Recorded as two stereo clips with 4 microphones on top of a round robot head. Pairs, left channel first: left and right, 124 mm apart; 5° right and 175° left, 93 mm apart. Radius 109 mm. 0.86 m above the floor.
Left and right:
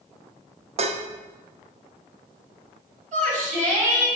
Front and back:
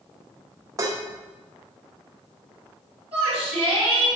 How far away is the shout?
About 4 m.